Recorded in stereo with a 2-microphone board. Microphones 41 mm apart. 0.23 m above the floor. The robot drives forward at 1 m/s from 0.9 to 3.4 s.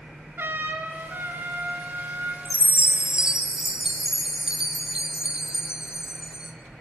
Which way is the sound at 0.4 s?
60° right (ahead or behind).